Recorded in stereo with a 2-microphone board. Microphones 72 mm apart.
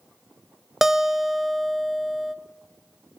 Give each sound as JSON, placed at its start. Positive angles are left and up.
{"t": 0.8, "sound": "a guitar", "side_deg": -5, "distance_m": 0.9}